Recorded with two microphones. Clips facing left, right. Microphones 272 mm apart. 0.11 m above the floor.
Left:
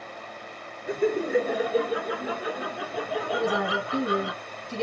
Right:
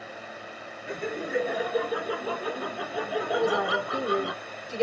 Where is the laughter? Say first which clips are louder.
Left 8 dB; 45° left (ahead or behind), 2 m; by 4.3 s 40° right (ahead or behind), 1.9 m.